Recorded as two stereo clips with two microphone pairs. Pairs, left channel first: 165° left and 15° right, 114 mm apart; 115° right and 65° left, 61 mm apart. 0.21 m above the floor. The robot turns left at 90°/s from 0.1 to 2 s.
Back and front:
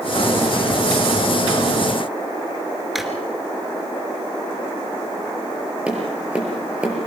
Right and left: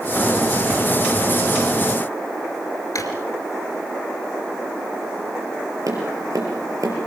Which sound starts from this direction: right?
A drawer, at 3.0 s.